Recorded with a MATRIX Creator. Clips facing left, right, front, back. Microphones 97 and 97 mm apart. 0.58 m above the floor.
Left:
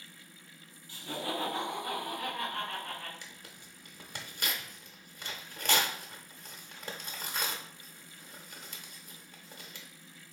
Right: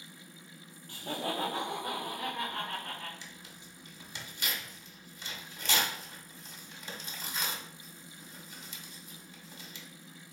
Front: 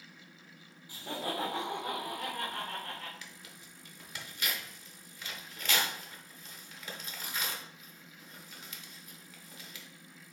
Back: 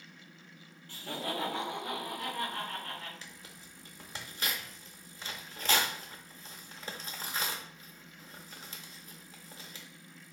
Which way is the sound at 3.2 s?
120° left.